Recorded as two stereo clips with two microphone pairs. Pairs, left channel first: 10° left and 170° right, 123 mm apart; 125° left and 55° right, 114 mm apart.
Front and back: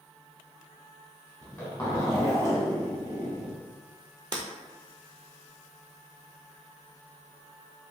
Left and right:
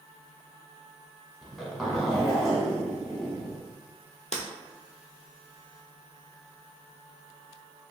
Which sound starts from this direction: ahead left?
A zipper, at 1.4 s.